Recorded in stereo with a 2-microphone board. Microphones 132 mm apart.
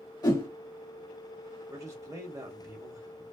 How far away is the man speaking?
About 1.0 m.